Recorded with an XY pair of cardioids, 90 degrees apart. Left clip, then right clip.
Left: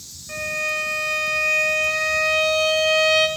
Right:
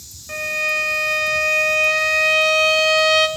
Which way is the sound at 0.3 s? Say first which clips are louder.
Right 3 dB; 40° right.